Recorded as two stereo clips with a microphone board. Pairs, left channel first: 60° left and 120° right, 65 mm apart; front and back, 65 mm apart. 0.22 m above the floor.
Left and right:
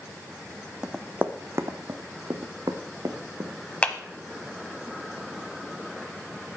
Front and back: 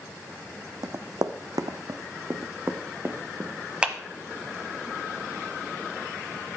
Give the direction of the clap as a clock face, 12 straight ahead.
8 o'clock.